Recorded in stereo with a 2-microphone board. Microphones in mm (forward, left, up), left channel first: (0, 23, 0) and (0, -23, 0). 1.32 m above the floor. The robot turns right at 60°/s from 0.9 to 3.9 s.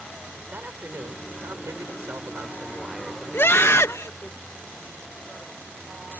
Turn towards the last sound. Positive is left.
turn(degrees=90)